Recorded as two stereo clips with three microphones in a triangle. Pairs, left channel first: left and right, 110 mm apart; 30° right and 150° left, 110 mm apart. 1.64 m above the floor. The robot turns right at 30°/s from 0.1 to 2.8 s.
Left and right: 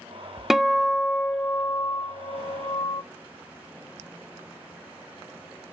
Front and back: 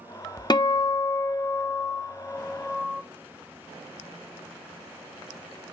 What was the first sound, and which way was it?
A guitar, 5° right.